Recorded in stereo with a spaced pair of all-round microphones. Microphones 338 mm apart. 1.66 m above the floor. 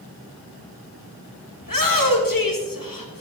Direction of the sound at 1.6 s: 75° left (ahead or behind).